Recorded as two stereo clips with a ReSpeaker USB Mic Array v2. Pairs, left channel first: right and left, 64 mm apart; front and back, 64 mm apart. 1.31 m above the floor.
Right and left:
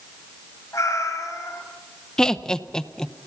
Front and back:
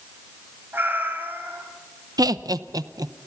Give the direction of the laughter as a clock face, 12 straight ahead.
6 o'clock.